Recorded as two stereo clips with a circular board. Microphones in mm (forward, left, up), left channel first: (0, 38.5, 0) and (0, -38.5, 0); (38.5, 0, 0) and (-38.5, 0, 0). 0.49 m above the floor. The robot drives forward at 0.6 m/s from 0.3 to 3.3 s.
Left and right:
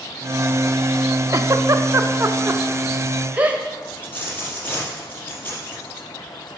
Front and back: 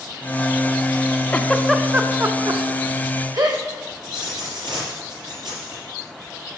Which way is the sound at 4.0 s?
160° left.